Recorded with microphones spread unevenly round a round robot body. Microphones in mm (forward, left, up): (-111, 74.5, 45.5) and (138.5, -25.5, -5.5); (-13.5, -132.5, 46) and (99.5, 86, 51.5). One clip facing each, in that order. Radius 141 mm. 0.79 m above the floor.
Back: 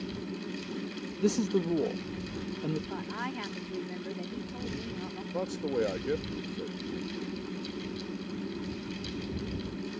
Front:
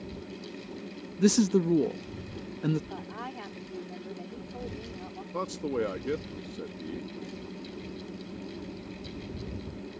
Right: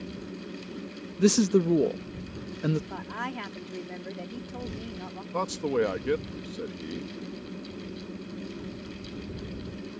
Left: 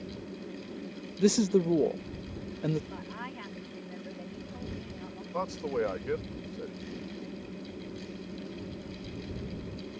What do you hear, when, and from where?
1.2 s a man speaking: 45° right
2.9 s a woman speaking: 140° right
5.3 s a man speaking: 90° right